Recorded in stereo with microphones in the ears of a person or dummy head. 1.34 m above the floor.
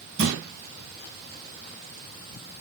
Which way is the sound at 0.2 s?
55° right (ahead or behind).